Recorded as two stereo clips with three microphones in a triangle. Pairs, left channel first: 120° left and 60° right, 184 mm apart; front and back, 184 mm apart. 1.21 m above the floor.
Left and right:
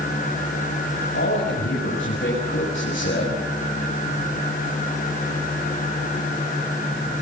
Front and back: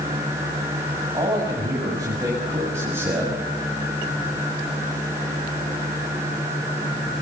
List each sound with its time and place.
1.1 s a man speaking: 110° left, 7 m; by 3.4 s 100° left, 6.5 m